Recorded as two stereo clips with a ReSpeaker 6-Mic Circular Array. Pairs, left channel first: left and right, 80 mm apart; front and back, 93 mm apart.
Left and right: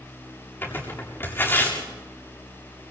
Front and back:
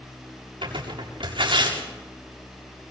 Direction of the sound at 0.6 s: 155° left.